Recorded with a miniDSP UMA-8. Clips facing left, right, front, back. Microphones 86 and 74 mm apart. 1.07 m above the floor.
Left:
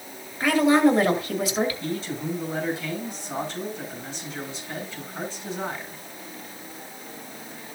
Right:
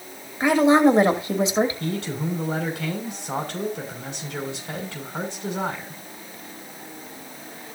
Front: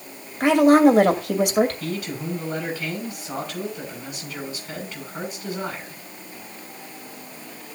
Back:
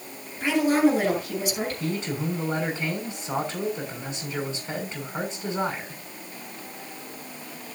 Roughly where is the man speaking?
Behind right.